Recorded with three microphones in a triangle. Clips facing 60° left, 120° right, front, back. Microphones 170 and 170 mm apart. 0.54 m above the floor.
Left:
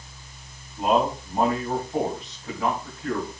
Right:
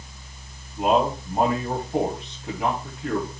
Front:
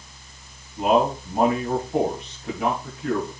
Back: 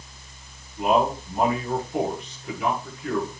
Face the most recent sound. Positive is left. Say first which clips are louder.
# right 1 dB, front 2 dB
turn(degrees=-45)